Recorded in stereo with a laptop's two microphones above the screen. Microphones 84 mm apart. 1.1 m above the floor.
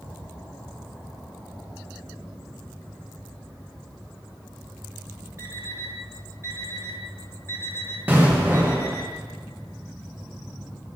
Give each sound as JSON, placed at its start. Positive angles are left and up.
{"t": 5.4, "sound": "an alarm clock", "side_deg": -35, "distance_m": 1.3}
{"t": 8.1, "sound": "an explosion", "side_deg": -20, "distance_m": 1.1}